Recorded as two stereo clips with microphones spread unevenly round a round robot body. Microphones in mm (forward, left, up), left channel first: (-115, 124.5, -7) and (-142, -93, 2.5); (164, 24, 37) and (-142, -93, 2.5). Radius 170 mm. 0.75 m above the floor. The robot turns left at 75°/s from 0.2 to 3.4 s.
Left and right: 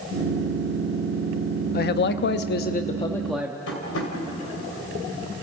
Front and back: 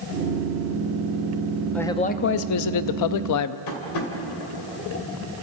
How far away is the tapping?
About 3 m.